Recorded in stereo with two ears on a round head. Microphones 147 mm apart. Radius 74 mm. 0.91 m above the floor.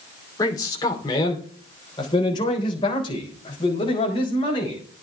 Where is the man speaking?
20° left (ahead or behind), 2.5 m; by 4.8 s 35° left (ahead or behind), 5.5 m.